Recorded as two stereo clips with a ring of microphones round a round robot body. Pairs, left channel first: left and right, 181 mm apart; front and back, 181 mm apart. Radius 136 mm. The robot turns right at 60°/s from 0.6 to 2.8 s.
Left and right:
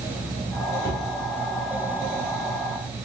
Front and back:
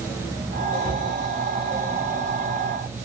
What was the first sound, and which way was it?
A cupboard door, 75° right.